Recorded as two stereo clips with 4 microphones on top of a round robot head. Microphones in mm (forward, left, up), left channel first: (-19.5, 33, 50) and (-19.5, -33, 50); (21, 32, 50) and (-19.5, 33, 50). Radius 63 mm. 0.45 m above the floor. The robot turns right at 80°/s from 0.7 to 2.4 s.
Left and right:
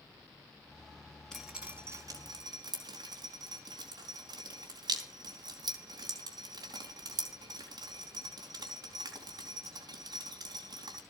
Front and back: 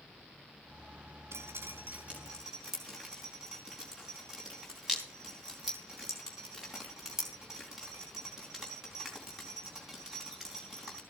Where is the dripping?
175° left, 4.5 m; by 11.0 s 100° right, 4.5 m.